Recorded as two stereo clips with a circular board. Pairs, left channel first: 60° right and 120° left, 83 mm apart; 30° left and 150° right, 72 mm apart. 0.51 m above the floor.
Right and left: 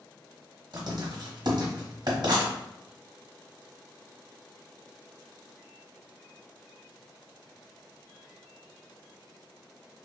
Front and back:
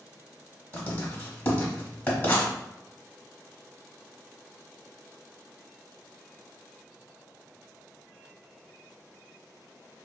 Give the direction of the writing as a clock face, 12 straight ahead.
9 o'clock.